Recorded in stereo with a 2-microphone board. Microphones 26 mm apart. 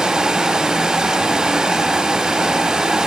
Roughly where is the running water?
Right.